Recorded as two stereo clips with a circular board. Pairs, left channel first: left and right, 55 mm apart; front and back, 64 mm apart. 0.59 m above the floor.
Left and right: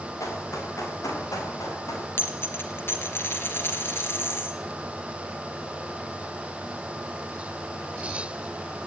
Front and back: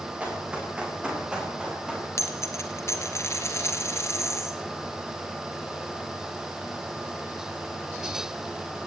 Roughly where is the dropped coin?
Ahead left.